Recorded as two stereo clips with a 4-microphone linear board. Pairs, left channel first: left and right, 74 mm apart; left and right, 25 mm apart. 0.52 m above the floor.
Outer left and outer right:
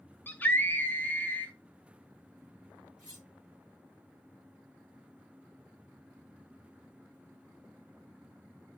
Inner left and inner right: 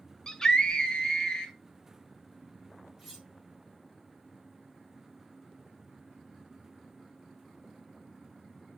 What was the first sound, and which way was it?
A scream, 25° left (ahead or behind).